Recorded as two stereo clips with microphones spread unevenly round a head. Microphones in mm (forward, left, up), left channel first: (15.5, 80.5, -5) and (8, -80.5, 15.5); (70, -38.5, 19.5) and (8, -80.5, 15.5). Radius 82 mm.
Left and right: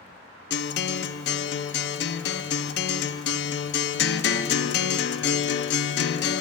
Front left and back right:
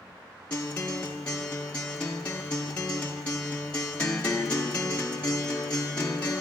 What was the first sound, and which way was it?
A guitar, 115° left.